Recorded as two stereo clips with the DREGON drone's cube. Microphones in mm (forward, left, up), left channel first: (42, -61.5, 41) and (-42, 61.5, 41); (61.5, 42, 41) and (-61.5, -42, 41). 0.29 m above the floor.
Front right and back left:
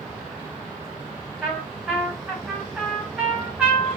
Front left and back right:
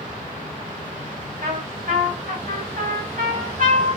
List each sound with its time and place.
1.4 s a trumpet: 150° right, 4 m